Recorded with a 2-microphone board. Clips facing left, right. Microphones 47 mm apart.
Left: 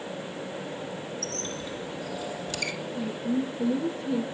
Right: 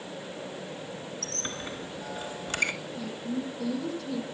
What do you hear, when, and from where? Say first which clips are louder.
1.2 s a squeak: left 2 dB; 40° right (ahead or behind), 2.5 m
3.0 s a woman speaking: left 5 dB; 30° left (ahead or behind), 8 m